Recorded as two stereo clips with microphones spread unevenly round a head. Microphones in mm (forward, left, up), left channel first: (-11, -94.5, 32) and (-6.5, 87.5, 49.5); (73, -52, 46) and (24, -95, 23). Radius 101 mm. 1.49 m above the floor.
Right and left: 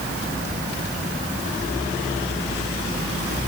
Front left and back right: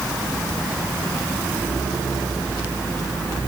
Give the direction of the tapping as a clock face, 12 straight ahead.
I don't hear tapping.